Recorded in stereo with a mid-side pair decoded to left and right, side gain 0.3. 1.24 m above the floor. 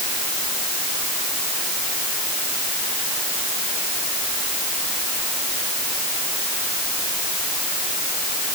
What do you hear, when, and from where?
Only background noise.